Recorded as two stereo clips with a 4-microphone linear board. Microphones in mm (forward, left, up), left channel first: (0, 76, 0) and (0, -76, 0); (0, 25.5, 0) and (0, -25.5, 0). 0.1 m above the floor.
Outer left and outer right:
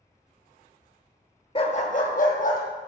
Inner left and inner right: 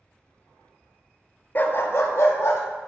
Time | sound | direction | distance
1.6 | a dog barking | 40° left (ahead or behind) | 0.7 m